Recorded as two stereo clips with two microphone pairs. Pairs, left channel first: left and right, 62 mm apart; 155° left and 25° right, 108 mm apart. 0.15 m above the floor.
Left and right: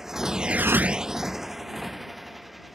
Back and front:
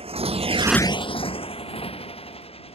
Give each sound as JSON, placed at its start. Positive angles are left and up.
{"t": 0.0, "sound": "a motorcycle", "azimuth_deg": -10}